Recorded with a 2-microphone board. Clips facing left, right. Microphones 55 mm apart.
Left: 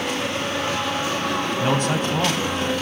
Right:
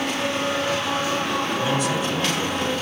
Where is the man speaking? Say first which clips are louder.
Left 1 dB; 50° left (ahead or behind), 2.5 m.